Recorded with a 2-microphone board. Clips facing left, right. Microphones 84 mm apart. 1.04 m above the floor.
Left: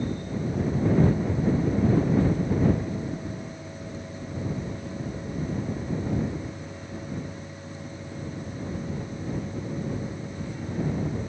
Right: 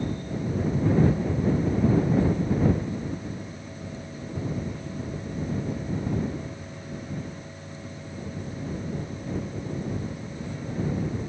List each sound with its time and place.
Only background noise.